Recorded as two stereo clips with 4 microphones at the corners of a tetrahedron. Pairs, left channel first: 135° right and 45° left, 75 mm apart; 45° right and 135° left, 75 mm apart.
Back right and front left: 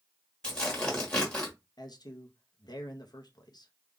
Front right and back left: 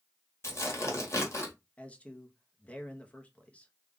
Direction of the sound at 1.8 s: 115° right.